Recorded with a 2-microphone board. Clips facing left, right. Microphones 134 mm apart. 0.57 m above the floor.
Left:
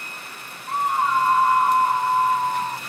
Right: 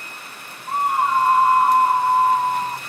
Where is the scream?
35° right (ahead or behind), 1.1 m.